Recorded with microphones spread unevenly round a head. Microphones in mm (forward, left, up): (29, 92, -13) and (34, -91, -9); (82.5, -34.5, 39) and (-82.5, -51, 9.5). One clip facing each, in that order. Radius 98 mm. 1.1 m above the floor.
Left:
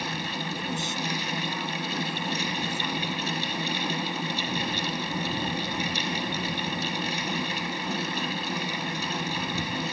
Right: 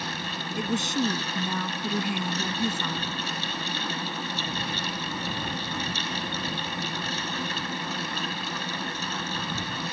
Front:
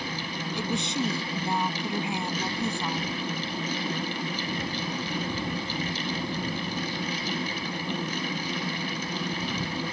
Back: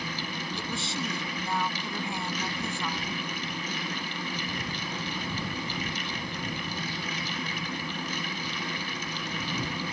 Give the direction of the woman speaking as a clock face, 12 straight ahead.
2 o'clock.